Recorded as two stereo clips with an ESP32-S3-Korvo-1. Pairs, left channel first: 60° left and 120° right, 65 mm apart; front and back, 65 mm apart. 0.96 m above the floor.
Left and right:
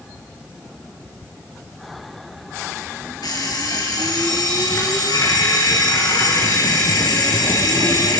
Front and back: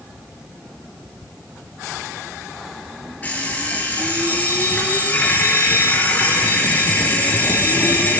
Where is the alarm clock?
70° left, 10 m.